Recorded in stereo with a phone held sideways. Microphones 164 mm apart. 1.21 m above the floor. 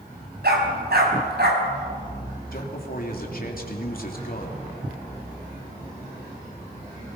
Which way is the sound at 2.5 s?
60° left (ahead or behind).